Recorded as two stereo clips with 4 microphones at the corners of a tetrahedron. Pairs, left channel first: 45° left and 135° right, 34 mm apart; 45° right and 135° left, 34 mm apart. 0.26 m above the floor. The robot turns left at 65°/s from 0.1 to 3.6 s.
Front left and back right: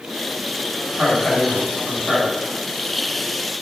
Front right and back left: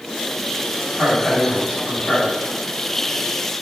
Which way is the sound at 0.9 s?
75° left.